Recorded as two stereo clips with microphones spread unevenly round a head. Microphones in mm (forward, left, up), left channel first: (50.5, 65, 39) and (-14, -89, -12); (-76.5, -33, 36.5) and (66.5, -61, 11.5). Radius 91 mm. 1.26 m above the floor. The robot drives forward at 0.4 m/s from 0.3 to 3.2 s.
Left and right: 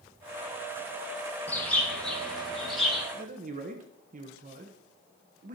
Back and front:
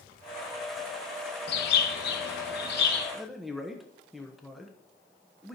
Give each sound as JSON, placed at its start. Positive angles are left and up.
{"t": 1.5, "sound": "a bird", "azimuth_deg": 155, "distance_m": 1.2}
{"t": 3.1, "sound": "a man speaking", "azimuth_deg": -95, "distance_m": 1.1}